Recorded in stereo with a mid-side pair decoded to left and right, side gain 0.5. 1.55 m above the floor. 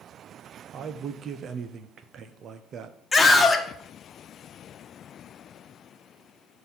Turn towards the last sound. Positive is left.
turn(degrees=25)